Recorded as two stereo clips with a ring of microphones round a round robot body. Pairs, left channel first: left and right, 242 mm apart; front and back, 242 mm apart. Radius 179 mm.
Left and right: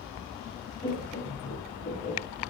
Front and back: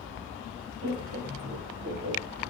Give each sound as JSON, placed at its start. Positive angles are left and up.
{"t": 0.8, "sound": "laughter", "azimuth_deg": 150, "distance_m": 4.5}